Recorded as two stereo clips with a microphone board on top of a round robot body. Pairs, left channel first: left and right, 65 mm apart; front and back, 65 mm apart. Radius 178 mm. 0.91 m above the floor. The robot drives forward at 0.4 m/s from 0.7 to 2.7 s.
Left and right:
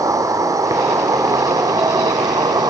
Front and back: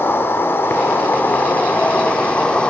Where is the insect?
60° right, 2.5 m; by 2.7 s 75° right, 2 m.